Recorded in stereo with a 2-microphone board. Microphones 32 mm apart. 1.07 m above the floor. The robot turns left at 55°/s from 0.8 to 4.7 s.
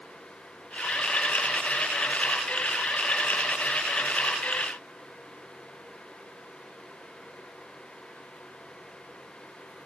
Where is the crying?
No crying in this recording.